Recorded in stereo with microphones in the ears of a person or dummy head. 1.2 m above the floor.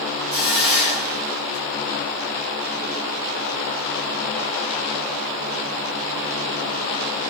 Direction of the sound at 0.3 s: 5° right (ahead or behind).